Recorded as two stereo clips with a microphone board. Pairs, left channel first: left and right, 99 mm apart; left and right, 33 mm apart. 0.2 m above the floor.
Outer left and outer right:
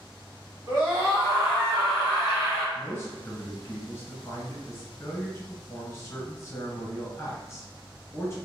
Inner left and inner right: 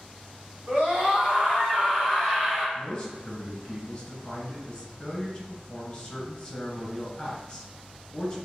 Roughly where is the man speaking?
Left.